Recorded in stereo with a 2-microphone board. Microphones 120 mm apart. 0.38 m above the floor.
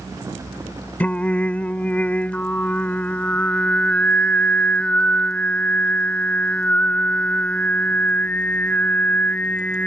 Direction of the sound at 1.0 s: 10° left (ahead or behind).